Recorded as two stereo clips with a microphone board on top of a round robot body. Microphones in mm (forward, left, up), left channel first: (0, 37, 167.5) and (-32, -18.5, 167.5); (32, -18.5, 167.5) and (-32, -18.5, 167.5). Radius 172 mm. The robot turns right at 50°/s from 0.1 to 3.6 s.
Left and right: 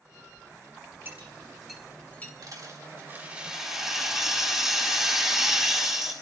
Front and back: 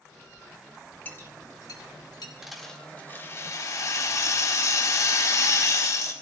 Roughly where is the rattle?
Right.